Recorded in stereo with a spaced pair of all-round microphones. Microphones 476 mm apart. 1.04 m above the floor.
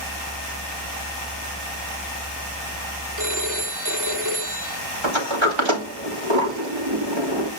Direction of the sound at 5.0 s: 75° right (ahead or behind).